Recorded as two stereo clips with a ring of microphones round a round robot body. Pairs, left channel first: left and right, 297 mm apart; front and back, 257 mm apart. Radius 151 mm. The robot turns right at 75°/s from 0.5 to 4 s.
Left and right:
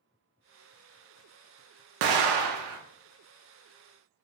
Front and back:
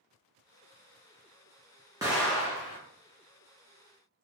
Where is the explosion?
100° right, 0.5 m; by 2.8 s 40° right, 0.5 m.